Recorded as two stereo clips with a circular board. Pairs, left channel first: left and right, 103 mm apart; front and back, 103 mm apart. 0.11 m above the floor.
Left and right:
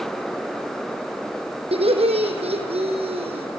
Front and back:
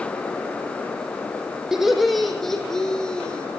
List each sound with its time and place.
1.7 s laughter: 95° right, 4.5 m; by 3.5 s 80° right, 6 m